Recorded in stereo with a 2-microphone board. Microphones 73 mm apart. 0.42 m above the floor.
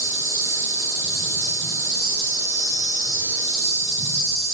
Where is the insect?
45° right (ahead or behind), 1.2 m.